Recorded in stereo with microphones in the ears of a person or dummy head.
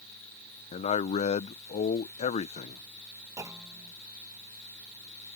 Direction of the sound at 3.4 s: 20° right (ahead or behind).